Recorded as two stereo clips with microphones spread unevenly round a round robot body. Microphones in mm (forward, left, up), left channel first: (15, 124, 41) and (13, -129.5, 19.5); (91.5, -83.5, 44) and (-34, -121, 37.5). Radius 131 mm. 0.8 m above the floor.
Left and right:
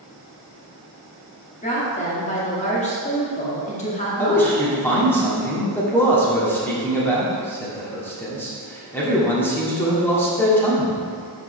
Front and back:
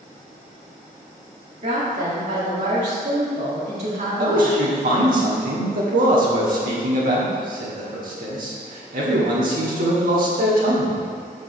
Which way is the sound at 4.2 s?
175° left.